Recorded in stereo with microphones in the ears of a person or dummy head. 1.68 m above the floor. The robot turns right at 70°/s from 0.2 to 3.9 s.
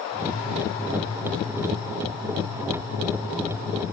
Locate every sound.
Only background noise.